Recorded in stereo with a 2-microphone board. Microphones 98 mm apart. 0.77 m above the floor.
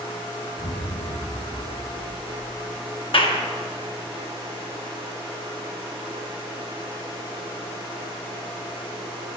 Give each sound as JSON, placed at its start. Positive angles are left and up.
{"t": 0.6, "sound": "an explosion", "side_deg": 80, "distance_m": 2.0}
{"t": 3.1, "sound": "a clap", "side_deg": 65, "distance_m": 1.1}